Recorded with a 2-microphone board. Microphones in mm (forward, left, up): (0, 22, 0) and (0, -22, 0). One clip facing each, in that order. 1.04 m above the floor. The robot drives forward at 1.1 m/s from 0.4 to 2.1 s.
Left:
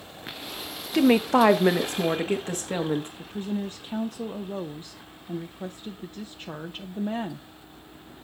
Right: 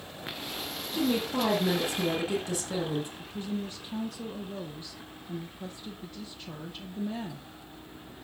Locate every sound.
0.9 s a woman speaking: 65° left (ahead or behind), 0.9 m; by 3.1 s 40° left (ahead or behind), 1.2 m
3.2 s a woman speaking: 35° left (ahead or behind), 0.6 m